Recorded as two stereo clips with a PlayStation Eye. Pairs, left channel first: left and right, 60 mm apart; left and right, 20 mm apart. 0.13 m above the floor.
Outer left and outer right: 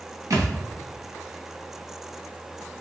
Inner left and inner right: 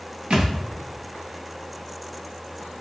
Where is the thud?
70° right (ahead or behind), 1.4 m.